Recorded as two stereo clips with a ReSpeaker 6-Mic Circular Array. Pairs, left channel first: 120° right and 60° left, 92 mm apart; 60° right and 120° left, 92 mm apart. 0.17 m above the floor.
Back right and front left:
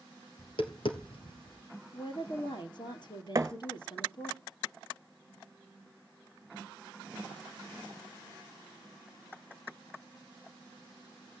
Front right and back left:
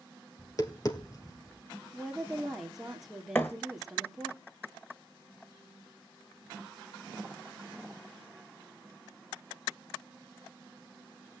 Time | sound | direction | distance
0.4 | tapping | 105° right | 2.5 m
1.9 | a woman speaking | 150° right | 3 m
3.4 | a thud | 5° left | 1.4 m